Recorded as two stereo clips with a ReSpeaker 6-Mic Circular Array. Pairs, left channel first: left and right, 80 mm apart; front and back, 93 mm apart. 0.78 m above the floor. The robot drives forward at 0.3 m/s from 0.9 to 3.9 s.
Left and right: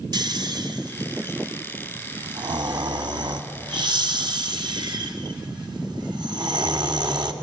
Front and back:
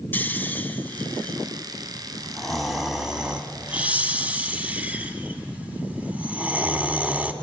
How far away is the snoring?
About 1.5 m.